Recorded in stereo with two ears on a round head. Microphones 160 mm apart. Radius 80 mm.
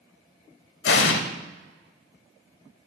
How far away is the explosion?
About 1.2 m.